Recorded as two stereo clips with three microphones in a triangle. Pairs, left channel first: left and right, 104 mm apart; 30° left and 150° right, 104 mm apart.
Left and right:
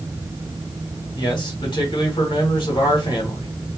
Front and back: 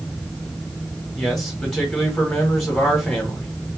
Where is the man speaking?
120° left, 1.4 m.